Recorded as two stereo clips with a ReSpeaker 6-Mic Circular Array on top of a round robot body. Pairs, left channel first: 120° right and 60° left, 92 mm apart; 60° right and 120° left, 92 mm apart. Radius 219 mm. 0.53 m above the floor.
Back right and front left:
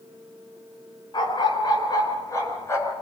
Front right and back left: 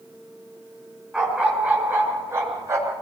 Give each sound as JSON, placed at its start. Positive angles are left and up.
{"t": 1.1, "sound": "a dog barking", "azimuth_deg": -160, "distance_m": 4.0}